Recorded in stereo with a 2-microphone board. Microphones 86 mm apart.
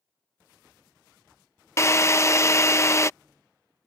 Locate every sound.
1.8 s a drill: 35° left (ahead or behind)